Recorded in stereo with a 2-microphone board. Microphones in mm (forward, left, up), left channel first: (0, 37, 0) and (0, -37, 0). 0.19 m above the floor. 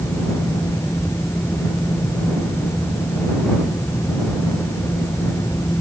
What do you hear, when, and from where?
Only background noise.